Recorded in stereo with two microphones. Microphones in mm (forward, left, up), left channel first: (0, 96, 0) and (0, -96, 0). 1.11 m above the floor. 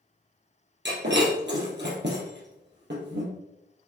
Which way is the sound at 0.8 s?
65° right (ahead or behind).